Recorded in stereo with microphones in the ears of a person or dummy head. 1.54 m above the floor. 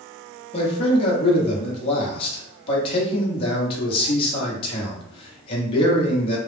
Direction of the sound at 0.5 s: 35° left (ahead or behind).